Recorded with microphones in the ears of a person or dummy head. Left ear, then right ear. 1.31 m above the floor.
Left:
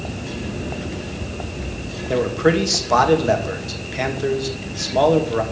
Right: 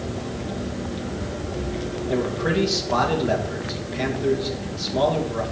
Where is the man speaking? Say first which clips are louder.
Left 6 dB; 75° left (ahead or behind), 2 m.